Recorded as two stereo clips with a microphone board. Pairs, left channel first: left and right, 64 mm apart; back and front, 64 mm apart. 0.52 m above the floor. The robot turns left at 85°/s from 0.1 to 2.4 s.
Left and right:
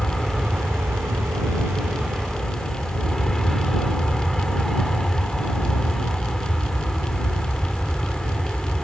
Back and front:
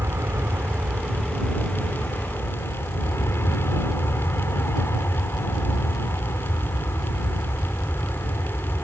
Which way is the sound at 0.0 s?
10° left.